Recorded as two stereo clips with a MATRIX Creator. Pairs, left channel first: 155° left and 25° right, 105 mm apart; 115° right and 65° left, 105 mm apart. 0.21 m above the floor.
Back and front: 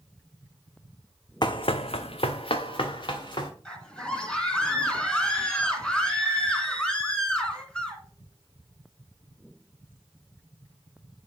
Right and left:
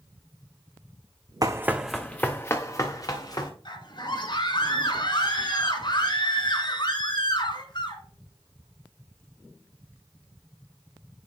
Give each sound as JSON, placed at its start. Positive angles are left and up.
{"t": 1.4, "sound": "running footsteps", "azimuth_deg": 115, "distance_m": 0.7}
{"t": 3.6, "sound": "a scream", "azimuth_deg": -125, "distance_m": 2.0}